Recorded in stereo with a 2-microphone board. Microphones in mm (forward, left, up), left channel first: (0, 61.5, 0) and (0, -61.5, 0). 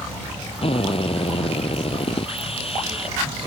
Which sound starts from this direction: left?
A drill, at 0.6 s.